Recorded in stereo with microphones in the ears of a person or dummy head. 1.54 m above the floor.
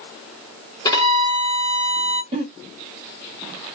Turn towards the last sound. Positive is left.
turn(degrees=-35)  # may be behind; listen again after turning